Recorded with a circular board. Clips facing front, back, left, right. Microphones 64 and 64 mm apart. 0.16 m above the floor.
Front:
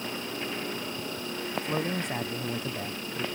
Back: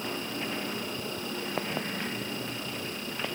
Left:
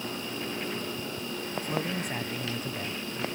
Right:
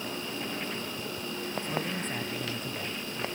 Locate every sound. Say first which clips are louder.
1.6 s a man speaking: front 3 dB, left 3 dB; 10° left